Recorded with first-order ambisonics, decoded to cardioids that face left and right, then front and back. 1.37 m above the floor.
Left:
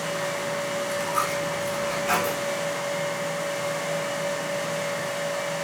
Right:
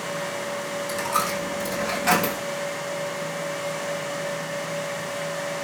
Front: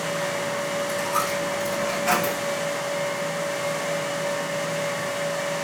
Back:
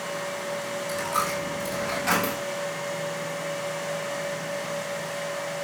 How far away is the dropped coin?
About 3.5 m.